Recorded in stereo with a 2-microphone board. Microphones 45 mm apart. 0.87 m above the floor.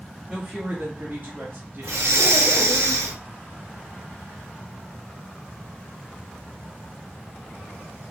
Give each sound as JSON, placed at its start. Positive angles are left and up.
{"t": 0.3, "sound": "a woman speaking", "side_deg": -10, "distance_m": 1.1}
{"t": 1.8, "sound": "breathing", "side_deg": -75, "distance_m": 0.7}